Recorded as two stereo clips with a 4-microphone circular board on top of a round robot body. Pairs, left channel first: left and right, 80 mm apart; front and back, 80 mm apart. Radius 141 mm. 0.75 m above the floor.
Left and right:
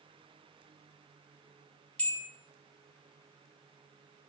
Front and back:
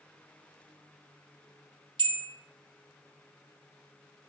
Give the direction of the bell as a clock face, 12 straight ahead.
6 o'clock.